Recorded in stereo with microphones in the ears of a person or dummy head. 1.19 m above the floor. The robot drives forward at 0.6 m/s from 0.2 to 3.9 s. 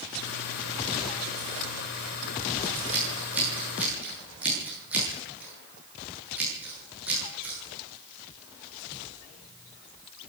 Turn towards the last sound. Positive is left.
turn(degrees=-10)  # may be behind; listen again after turning